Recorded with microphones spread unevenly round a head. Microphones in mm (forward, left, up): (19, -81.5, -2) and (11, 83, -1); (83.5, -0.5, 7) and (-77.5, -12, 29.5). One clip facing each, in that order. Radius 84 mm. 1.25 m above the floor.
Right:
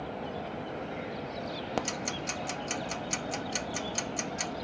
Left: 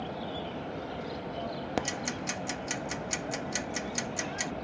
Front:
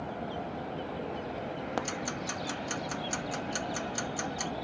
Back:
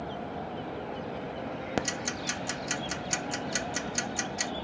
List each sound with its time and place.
1.8 s ticking: 170° left